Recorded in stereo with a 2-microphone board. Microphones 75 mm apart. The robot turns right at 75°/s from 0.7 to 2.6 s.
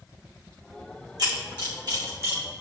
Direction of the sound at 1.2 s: 60° right (ahead or behind).